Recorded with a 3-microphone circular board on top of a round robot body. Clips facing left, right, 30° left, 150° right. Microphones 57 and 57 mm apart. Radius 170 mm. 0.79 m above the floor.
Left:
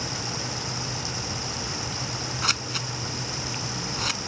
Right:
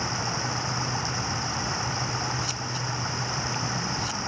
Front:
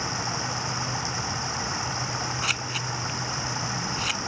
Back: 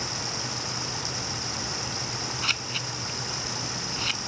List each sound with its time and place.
0.0 s running water: 30° right
2.4 s scissors: 115° left